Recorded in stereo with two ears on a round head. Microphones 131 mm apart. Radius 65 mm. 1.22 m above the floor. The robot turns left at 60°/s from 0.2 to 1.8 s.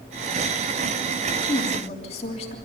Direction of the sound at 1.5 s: 25° left (ahead or behind).